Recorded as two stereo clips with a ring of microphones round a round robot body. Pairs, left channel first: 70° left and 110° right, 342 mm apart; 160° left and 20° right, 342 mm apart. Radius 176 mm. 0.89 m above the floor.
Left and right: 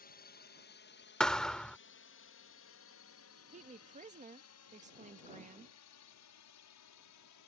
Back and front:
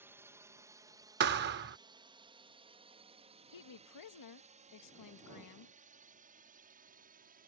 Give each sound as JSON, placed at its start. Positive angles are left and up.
{"t": 0.0, "sound": "a drone", "azimuth_deg": 55}
{"t": 1.2, "sound": "a thud", "azimuth_deg": -20}
{"t": 3.5, "sound": "a woman speaking", "azimuth_deg": 180}